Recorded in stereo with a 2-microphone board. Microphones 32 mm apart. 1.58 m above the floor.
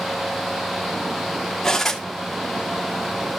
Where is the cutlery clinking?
10° left (ahead or behind), 2 m.